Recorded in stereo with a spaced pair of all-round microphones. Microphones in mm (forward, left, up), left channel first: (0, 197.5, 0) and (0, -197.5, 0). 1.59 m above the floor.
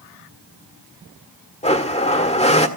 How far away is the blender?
About 1.7 m.